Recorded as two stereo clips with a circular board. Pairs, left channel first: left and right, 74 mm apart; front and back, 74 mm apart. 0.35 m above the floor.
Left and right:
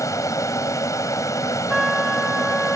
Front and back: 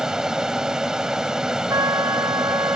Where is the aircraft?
100° left.